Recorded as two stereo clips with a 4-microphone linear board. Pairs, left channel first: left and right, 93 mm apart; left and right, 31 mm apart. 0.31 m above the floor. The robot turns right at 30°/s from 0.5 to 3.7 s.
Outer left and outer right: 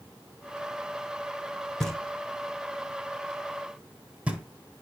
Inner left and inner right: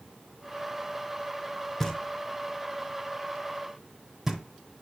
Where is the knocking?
5° left (ahead or behind), 0.8 m; by 4.4 s 15° right (ahead or behind), 0.8 m.